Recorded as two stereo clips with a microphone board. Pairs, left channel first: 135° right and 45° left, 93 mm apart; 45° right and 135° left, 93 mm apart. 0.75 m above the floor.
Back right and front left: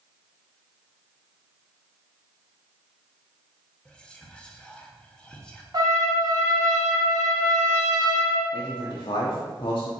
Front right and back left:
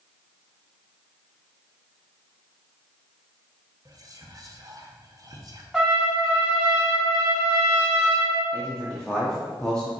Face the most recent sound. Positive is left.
turn(degrees=-125)